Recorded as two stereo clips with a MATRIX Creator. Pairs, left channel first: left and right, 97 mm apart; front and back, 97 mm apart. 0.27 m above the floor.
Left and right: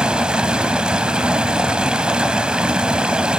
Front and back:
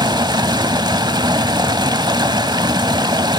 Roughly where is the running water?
Behind.